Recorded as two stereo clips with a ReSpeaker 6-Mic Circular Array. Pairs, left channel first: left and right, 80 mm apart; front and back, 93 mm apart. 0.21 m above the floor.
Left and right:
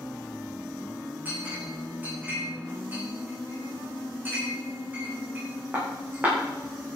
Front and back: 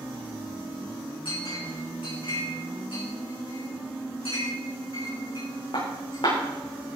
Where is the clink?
25° right, 8 m.